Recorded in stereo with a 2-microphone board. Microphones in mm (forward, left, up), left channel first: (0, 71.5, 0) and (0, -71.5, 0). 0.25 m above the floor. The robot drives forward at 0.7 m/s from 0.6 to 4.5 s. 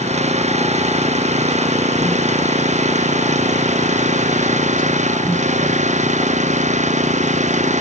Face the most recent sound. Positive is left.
turn(degrees=-55)  # may be behind; listen again after turning